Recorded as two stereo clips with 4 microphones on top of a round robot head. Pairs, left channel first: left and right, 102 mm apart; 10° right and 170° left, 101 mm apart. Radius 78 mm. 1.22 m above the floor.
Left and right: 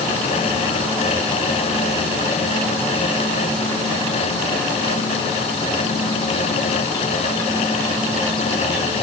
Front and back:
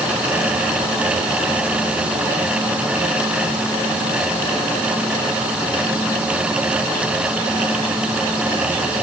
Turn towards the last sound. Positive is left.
No sound to turn to.